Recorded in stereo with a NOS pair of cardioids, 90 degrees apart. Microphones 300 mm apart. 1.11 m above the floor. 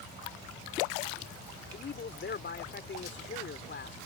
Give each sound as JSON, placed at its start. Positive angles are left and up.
{"t": 1.7, "sound": "a man speaking", "azimuth_deg": 35}